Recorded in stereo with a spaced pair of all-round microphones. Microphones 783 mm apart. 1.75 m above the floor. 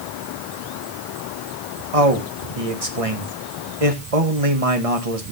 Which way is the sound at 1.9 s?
45° right (ahead or behind).